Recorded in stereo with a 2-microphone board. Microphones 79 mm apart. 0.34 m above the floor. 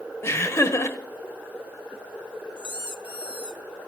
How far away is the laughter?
About 1.0 m.